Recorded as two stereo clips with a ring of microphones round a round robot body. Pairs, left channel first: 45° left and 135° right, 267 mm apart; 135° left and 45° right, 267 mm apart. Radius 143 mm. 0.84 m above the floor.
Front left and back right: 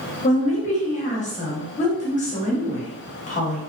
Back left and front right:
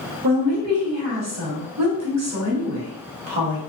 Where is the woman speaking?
20° right, 1.0 m.